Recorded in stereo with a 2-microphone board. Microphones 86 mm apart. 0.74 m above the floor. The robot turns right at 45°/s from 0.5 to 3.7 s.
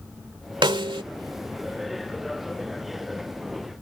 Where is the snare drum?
70° right (ahead or behind); by 1.0 s 80° right.